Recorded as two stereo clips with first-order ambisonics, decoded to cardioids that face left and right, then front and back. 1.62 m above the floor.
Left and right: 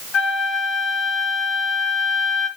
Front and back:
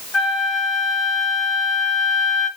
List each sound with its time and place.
0.1 s a flute: 60° left, 1.3 m